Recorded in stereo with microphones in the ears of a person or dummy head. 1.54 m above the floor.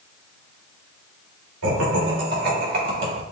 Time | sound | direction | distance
1.6 | laughter | 75° right (ahead or behind) | 2.5 m